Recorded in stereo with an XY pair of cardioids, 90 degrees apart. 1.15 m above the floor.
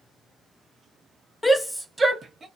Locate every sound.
1.4 s a shout: 25° left, 0.6 m; by 2.5 s 40° right, 0.9 m